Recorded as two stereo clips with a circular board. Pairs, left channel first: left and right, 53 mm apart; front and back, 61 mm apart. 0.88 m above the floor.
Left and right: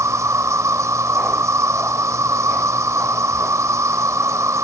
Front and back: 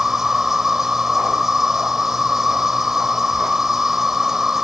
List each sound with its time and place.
0.0 s an insect: 100° right